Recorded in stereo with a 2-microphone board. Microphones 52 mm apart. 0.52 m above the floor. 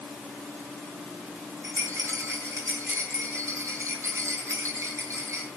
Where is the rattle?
70° right (ahead or behind), 5.5 m.